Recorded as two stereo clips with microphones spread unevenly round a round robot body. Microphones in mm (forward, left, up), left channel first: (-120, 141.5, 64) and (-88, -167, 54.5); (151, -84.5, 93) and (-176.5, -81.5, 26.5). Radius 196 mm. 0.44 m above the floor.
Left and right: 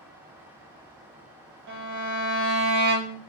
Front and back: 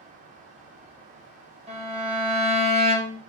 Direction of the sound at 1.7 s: 110° right.